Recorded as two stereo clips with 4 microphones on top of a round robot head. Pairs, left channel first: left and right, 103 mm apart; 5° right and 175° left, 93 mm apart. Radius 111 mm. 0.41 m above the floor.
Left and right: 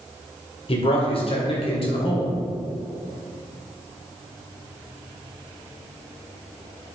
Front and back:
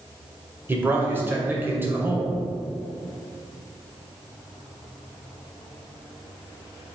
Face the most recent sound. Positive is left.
turn(degrees=105)